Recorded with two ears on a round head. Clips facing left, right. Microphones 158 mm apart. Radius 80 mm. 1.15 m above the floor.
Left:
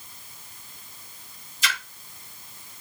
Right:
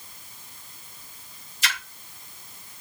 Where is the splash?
70° left (ahead or behind), 1.1 m.